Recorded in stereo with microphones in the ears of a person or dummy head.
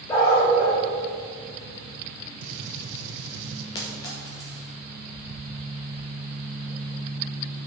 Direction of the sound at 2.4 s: 75° right (ahead or behind).